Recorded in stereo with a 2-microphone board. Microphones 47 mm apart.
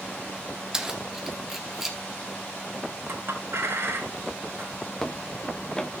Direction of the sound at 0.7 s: 10° right (ahead or behind).